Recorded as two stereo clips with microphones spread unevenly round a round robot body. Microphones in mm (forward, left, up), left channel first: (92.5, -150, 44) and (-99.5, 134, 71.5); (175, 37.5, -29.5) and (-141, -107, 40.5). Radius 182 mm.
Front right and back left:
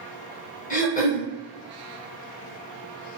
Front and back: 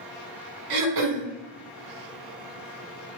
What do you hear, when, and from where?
0.7 s throat clearing: 125° right, 0.7 m